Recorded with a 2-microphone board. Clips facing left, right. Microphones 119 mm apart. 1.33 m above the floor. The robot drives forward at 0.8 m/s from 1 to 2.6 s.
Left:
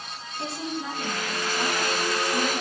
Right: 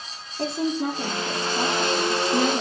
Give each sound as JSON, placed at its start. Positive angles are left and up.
{"t": 0.4, "sound": "a woman speaking", "side_deg": -50, "distance_m": 3.5}